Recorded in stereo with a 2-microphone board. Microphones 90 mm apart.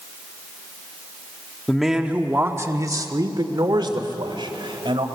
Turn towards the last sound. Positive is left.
turn(degrees=-70)  # may be behind; listen again after turning